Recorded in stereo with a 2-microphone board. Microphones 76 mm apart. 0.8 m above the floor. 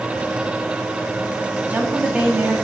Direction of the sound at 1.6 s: 20° right (ahead or behind).